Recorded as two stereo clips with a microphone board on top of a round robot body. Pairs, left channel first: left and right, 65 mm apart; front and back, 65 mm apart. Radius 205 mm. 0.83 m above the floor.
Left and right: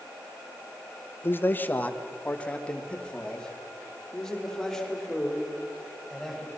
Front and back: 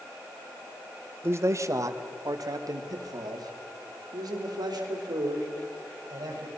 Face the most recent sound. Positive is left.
turn(degrees=175)